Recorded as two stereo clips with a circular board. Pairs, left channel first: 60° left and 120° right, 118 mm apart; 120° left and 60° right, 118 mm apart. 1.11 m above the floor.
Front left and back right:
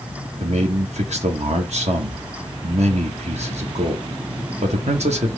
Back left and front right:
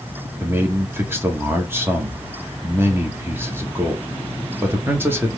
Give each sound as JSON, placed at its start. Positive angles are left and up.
{"t": 0.4, "sound": "a man speaking", "azimuth_deg": -130, "distance_m": 1.4}